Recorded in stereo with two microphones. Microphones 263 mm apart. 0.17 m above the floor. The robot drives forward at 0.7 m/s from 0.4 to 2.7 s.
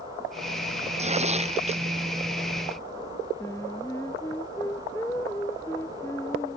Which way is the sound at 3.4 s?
10° left (ahead or behind).